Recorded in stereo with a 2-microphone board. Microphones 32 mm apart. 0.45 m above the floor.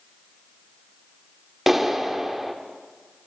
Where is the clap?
10° right (ahead or behind), 0.8 m.